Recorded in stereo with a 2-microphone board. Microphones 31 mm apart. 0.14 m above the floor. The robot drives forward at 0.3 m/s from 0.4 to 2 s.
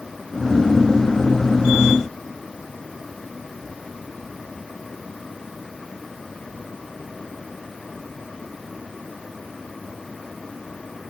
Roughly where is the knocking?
I don't hear knocking.